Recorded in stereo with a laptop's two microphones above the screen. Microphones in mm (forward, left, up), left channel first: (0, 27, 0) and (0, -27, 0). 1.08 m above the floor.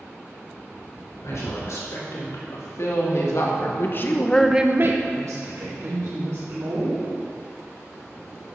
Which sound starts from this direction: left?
A woman speaking, at 1.2 s.